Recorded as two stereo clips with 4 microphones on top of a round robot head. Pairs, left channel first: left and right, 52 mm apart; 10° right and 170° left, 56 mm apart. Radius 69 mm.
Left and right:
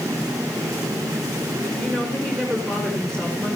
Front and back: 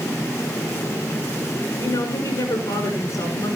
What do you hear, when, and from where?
1.8 s a woman speaking: 5° left, 7 m; by 3.6 s 15° left, 7.5 m